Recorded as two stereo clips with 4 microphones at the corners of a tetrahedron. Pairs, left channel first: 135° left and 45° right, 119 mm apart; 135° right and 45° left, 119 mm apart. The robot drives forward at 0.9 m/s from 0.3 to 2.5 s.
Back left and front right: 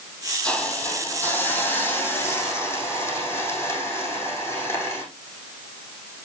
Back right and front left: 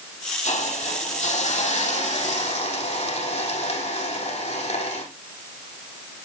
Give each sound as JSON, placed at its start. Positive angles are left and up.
{"t": 0.4, "sound": "a hiss", "azimuth_deg": -145, "distance_m": 3.5}